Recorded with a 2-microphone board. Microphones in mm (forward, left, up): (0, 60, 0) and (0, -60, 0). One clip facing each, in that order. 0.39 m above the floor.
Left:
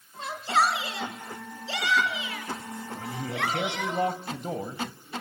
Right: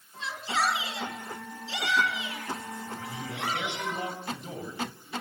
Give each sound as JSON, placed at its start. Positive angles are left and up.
{"t": 0.2, "sound": "a shout", "side_deg": 50, "distance_m": 5.0}
{"t": 3.0, "sound": "a man speaking", "side_deg": 50, "distance_m": 2.5}